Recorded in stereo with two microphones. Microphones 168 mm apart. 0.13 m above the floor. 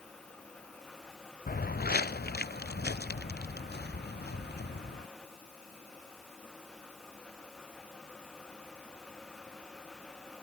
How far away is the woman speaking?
No woman speaking in this recording.